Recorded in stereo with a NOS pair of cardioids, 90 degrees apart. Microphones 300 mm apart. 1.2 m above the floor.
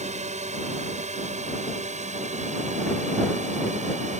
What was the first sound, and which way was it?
A drone, 20° right.